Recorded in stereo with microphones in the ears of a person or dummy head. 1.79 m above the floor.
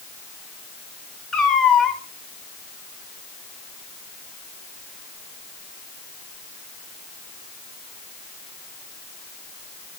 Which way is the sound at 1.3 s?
5° left (ahead or behind).